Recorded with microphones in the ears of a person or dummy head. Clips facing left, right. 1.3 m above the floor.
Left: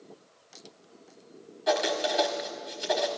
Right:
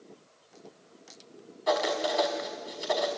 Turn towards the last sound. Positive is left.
turn(degrees=15)  # may be behind; listen again after turning